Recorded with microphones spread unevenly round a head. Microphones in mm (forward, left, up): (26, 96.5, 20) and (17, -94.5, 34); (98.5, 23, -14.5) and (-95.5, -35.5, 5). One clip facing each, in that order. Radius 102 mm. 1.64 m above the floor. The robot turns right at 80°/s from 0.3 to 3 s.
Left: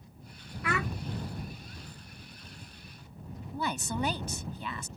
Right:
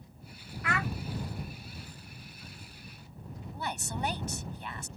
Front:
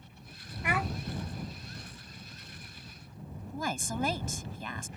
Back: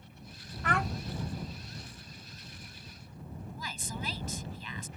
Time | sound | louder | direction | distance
0.6 | a child speaking | left 1 dB, even | 95° left | ?
3.5 | a woman speaking | left 5 dB, front 11 dB | 65° left | ?